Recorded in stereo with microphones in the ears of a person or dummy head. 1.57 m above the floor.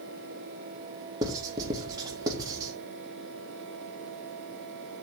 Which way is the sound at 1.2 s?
25° right (ahead or behind).